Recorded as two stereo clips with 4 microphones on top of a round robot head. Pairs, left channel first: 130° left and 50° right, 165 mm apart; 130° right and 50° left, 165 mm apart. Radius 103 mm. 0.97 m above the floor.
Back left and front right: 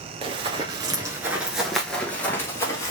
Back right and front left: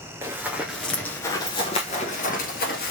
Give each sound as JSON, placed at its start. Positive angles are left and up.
{"t": 0.2, "sound": "running footsteps", "azimuth_deg": -15, "distance_m": 1.0}